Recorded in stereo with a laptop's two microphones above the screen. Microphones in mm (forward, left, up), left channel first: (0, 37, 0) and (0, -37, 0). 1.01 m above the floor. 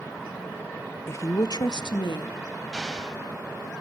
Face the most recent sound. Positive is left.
turn(degrees=0)  # may be behind; listen again after turning